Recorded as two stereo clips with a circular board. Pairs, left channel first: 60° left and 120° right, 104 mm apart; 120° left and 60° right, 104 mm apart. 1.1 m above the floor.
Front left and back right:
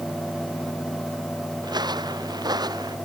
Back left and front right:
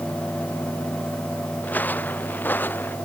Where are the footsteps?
165° right; by 3.0 s 170° right.